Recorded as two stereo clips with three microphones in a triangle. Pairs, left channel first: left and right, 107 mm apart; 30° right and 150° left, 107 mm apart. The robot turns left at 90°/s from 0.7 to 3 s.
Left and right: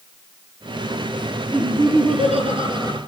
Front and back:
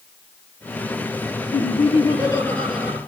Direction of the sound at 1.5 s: 20° right.